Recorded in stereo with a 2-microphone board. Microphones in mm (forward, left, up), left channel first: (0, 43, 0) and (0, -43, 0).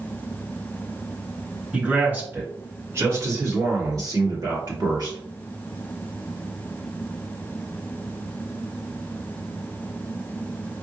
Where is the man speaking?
15° right (ahead or behind), 1.6 m; by 5.2 s 55° right (ahead or behind), 2.5 m.